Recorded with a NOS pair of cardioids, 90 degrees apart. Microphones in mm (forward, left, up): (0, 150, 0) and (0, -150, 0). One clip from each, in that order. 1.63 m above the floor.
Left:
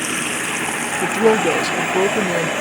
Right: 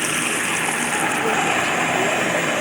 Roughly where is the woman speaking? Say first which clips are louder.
Left 6 dB; ahead left.